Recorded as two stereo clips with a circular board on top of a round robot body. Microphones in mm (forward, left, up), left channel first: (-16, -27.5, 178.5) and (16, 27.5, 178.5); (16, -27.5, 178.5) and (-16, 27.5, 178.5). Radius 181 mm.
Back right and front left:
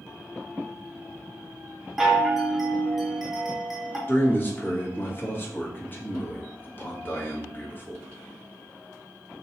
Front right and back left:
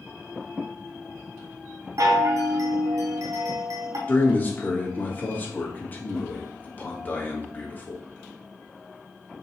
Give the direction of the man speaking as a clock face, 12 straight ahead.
3 o'clock.